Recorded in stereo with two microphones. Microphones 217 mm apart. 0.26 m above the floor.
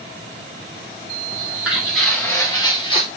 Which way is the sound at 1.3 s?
10° right (ahead or behind).